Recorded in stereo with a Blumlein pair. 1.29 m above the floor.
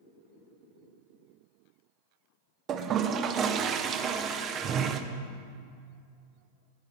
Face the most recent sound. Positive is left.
turn(degrees=-25)